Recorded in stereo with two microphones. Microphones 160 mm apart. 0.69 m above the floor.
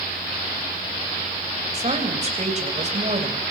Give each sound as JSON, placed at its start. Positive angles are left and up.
{"t": 1.7, "sound": "a woman speaking", "side_deg": -45, "distance_m": 3.0}